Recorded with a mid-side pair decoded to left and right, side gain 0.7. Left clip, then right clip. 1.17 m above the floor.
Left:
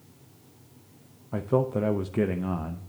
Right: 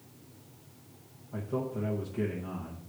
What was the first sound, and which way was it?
A man speaking, 50° left.